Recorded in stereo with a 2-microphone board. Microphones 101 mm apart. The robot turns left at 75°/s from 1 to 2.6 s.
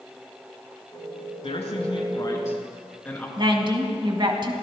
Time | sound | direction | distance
1.4 | a man speaking | 105° left | 2.5 m
3.4 | a woman speaking | 50° right (ahead or behind) | 1.5 m